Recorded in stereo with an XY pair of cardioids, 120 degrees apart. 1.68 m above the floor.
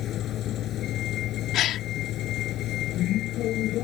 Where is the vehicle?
60° left; by 3.8 s 70° left.